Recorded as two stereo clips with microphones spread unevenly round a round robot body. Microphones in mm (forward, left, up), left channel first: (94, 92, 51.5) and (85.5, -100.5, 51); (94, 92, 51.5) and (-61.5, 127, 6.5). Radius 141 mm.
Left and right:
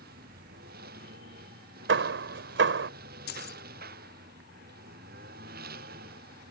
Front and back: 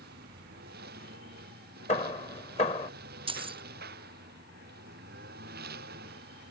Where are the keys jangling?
120° left.